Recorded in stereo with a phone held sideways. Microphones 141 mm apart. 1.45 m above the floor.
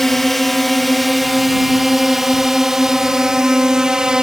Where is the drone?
Centre (ahead or behind); by 4.2 s 5° right (ahead or behind).